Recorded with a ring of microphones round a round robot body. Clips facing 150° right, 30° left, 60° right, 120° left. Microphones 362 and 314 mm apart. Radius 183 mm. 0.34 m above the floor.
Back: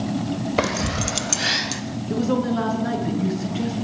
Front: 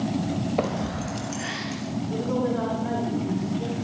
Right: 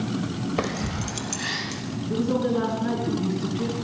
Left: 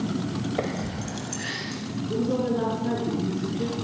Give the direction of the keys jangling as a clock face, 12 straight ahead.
4 o'clock.